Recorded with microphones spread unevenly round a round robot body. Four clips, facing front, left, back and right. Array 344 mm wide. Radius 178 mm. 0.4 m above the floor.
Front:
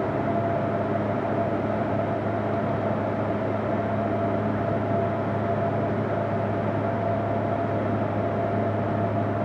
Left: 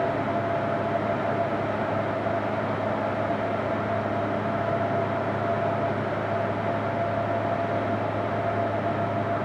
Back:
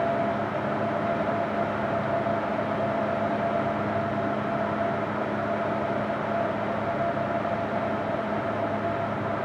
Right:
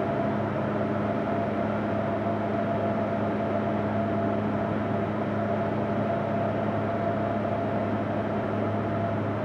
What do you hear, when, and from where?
Only background noise.